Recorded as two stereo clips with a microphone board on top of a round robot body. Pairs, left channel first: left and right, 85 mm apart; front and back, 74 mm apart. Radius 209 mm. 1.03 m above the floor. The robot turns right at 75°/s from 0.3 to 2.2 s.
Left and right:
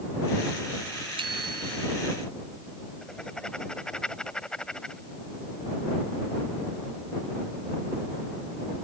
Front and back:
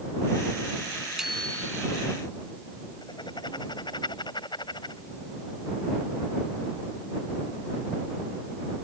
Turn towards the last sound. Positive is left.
turn(degrees=10)